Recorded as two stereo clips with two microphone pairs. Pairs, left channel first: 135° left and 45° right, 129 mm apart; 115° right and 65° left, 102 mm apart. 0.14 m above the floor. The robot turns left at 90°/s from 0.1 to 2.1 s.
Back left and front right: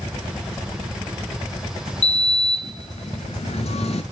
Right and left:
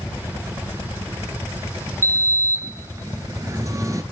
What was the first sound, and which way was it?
A sliding door, 120° left.